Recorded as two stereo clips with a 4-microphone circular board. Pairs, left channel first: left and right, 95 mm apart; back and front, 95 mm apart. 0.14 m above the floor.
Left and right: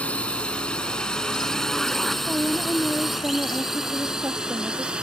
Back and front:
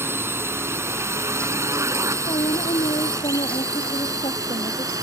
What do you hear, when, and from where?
0.0 s a drone: 30° left; by 5.0 s 15° right
2.3 s a woman speaking: 155° right